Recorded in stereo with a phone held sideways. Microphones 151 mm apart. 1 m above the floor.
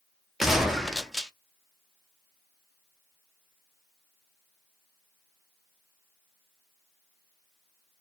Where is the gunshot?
Centre (ahead or behind), 0.6 m.